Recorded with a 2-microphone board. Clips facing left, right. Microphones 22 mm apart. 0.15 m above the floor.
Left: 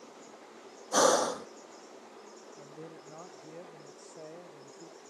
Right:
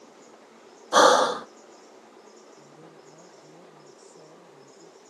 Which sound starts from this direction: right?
Breathing, at 0.9 s.